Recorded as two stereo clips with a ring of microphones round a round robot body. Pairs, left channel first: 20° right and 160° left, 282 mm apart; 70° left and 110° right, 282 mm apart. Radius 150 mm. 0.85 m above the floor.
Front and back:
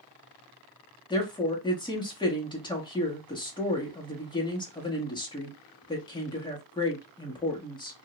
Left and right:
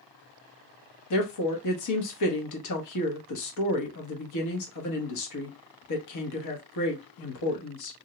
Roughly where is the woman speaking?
Ahead left.